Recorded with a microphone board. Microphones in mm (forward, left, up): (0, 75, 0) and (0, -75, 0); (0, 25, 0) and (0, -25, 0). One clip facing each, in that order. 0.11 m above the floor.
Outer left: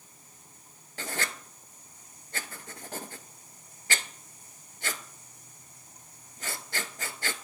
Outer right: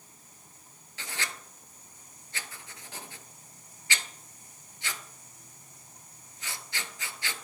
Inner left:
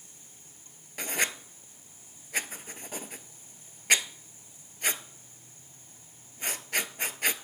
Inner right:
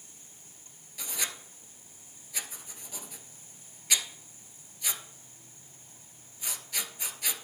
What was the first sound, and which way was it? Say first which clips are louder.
Writing: outer left 4 dB, inner left 7 dB; 50° left (ahead or behind).